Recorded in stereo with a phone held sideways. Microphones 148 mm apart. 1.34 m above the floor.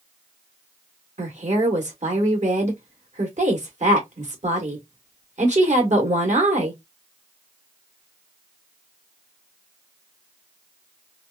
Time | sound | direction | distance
1.2 | a woman speaking | 55° right (ahead or behind) | 1.3 m